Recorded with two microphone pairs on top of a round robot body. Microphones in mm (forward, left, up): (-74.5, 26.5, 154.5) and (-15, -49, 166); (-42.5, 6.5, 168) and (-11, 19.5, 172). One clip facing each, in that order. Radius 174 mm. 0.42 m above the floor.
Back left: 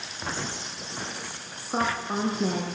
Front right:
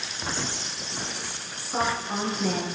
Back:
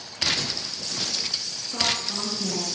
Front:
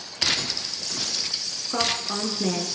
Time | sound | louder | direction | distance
1.7 | a woman speaking | even, front 1 dB | 75° left | 7.5 m